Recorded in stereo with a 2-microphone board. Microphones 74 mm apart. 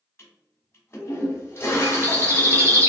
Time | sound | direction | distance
0.2 | a toilet flushing | 35° left (ahead or behind) | 1.1 m
1.8 | a bird | 35° right (ahead or behind) | 1.2 m